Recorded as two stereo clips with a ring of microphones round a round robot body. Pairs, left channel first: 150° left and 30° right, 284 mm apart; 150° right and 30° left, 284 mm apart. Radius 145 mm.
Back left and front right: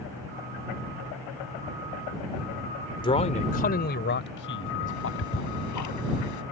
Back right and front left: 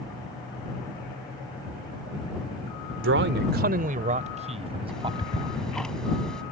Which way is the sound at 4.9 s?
120° left.